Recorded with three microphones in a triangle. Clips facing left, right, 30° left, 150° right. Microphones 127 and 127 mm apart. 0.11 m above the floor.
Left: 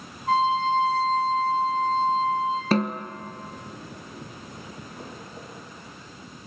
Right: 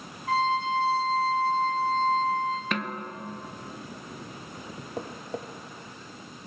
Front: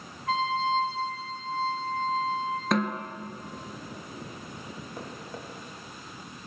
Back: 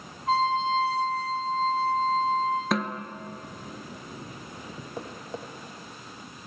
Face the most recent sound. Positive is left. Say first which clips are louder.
# right 5 dB, back 5 dB
turn(degrees=-80)